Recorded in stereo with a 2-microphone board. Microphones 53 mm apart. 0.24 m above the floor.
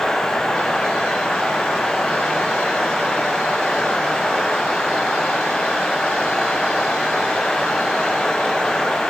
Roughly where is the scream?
I don't hear a scream.